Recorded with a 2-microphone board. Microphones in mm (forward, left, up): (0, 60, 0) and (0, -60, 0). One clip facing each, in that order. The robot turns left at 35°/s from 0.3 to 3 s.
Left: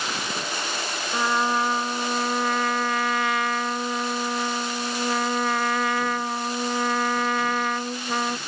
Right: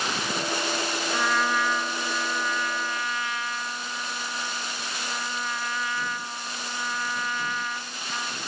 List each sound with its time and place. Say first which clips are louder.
1.1 s a trumpet: left 3 dB; 160° left; by 8.4 s 95° left